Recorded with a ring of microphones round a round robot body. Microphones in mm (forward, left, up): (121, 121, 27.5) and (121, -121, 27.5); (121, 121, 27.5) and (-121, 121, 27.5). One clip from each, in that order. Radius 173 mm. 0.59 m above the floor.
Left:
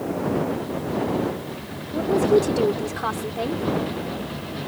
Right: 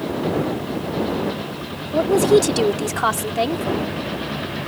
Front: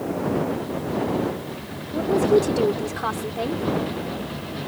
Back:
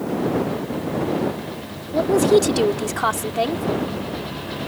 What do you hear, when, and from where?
1.9 s a woman speaking: 130° right